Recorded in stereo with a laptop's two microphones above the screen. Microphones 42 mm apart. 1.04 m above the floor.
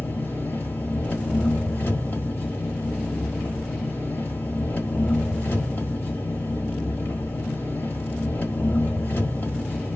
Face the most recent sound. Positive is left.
turn(degrees=65)  # may be behind; listen again after turning